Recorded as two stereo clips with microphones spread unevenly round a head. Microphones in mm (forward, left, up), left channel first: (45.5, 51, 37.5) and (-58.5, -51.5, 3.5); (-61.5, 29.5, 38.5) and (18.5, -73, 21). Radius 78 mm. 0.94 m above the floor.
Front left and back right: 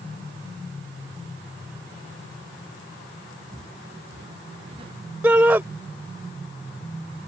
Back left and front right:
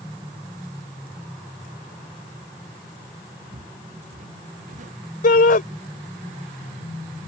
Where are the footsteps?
80° right.